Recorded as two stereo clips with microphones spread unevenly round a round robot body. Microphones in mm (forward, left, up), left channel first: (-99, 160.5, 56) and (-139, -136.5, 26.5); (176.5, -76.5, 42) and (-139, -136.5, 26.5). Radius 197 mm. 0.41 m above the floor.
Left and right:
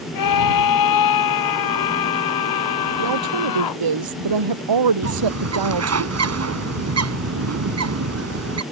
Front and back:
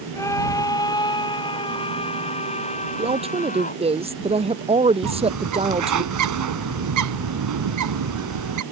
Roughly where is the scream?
Left.